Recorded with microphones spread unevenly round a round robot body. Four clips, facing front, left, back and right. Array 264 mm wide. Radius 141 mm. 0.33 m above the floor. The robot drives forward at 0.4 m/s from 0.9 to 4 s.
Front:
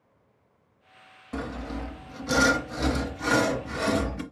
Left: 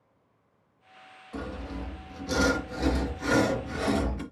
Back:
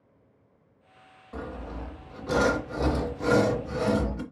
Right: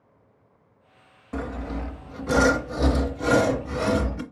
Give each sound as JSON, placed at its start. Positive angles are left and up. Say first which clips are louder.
{"t": 1.3, "sound": "sawing", "louder": "right 5 dB, front 4 dB", "azimuth_deg": -50, "distance_m": 0.9}